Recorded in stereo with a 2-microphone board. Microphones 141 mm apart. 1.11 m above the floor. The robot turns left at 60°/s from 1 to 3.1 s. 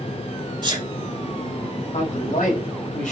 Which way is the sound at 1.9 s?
130° left.